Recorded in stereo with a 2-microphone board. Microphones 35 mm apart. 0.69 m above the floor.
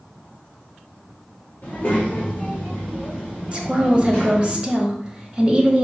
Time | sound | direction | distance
1.6 | a child speaking | 40° left (ahead or behind) | 1.4 m
3.5 | a woman speaking | 25° right (ahead or behind) | 0.7 m